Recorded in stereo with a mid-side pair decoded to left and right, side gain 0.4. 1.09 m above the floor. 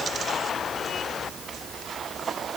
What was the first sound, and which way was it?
Only background noise.